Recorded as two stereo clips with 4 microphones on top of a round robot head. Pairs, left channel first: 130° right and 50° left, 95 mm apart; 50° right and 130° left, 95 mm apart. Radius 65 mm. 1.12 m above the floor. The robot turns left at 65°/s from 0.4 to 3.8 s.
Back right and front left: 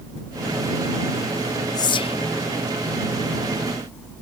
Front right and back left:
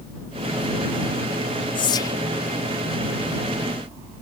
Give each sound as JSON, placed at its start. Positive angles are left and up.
{"t": 1.8, "sound": "whispering", "azimuth_deg": -85}